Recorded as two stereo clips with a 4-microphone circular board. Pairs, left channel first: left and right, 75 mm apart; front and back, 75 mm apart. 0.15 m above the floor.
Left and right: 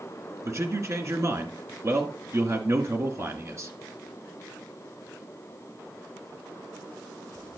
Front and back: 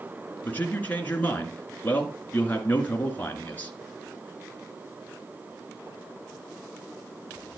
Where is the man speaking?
60° right, 1.8 m.